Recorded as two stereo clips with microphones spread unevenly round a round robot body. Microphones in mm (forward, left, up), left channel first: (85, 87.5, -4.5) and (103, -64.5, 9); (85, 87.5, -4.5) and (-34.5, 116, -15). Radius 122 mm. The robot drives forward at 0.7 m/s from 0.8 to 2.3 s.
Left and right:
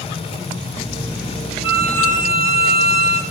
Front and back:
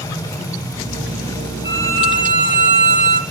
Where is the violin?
125° right, 0.6 m; by 3.2 s 150° right, 1.0 m.